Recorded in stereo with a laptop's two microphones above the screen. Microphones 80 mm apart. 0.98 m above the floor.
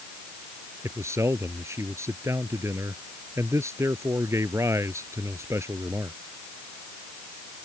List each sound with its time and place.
0.8 s a man speaking: 35° right (ahead or behind)